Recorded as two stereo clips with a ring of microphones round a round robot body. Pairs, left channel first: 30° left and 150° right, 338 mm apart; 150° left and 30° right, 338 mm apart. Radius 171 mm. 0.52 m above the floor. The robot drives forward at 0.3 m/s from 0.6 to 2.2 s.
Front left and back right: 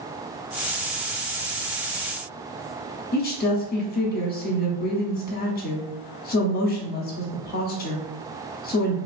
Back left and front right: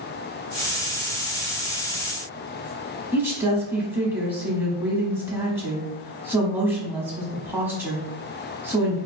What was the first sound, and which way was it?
A woman speaking, 45° left.